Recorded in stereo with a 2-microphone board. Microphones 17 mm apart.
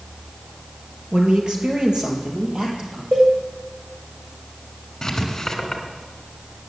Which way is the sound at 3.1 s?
60° right (ahead or behind).